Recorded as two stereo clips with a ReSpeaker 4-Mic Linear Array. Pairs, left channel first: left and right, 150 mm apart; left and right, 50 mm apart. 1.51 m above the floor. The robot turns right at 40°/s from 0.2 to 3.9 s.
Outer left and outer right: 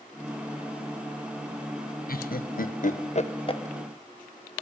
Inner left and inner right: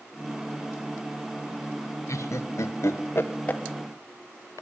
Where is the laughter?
80° left, 1.5 m; by 3.6 s 30° left (ahead or behind), 1.5 m.